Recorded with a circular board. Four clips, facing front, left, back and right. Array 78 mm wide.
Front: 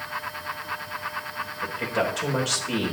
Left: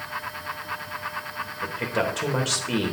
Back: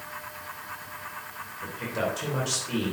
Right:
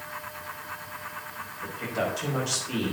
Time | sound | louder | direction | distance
1.6 | a man speaking | left 3 dB, front 4 dB | 70° left | 3 m